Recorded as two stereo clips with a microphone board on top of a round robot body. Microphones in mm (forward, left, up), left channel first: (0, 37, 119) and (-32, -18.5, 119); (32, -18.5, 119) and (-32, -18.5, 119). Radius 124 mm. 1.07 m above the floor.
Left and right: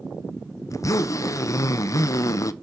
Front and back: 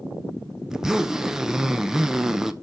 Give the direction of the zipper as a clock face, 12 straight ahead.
9 o'clock.